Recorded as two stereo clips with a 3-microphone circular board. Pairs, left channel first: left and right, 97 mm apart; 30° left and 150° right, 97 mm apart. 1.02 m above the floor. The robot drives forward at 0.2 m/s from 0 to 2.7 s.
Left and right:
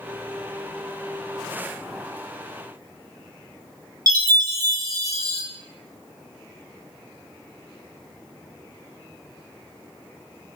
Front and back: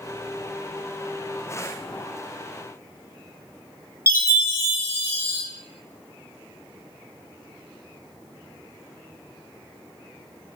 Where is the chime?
105° right, 0.7 m.